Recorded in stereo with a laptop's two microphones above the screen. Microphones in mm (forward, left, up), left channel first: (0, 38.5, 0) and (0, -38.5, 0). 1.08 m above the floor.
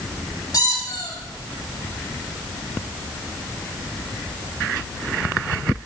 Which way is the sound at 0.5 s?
50° left (ahead or behind).